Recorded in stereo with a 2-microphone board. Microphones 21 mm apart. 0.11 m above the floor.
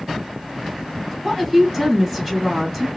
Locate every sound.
1.2 s a woman speaking: 20° right (ahead or behind), 2.5 m